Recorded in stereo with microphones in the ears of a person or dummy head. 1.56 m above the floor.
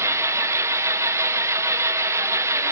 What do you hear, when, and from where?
0.0 s an engine running: 10° right (ahead or behind), 1.0 m